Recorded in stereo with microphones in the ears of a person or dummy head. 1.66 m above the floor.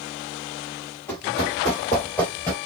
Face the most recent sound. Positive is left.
turn(degrees=0)  # may be behind; listen again after turning